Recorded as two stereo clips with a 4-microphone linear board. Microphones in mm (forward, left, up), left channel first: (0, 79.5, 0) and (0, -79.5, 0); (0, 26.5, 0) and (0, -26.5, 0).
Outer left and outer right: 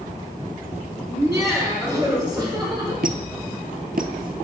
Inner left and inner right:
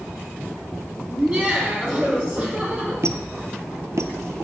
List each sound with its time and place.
1.1 s laughter: 15° right (ahead or behind), 2.5 m; by 2.9 s 30° right (ahead or behind), 5 m
3.0 s a squeak: 75° right (ahead or behind), 0.6 m